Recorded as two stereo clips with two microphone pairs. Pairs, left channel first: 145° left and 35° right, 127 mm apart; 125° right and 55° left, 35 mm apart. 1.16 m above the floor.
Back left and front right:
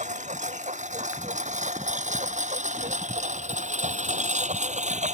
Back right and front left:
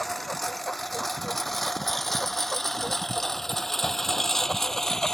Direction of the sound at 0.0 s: 35° right.